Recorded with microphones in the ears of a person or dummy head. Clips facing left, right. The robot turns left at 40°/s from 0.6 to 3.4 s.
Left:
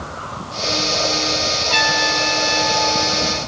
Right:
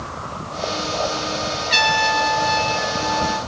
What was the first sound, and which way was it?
A trumpet, 30° right.